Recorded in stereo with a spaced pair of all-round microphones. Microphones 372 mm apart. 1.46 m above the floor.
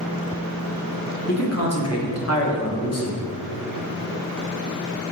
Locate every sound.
1.3 s a man speaking: 40° left (ahead or behind), 1.4 m